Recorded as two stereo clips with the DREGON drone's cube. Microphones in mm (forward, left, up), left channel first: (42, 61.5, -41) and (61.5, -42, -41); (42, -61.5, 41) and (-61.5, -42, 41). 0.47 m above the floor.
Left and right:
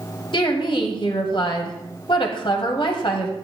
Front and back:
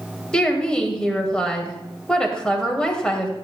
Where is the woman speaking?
70° left, 1.9 m.